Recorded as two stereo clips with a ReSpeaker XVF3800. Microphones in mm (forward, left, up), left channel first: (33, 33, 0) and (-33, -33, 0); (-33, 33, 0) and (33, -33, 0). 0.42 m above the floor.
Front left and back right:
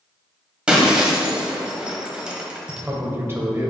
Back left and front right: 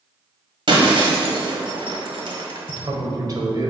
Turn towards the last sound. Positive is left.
turn(degrees=-75)